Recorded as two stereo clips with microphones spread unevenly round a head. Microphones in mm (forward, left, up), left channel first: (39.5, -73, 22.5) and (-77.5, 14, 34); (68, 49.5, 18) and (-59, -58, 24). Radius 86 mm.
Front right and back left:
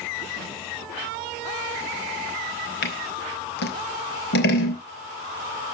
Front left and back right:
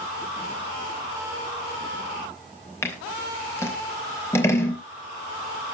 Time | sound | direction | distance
2.8 | scissors | 35° right | 3 m